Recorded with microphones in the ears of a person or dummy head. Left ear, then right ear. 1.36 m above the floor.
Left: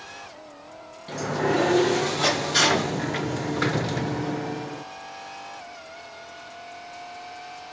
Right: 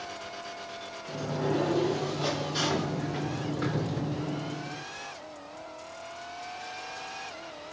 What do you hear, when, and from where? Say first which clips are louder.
1.1 s a sliding door: left 6 dB; 55° left (ahead or behind), 0.5 m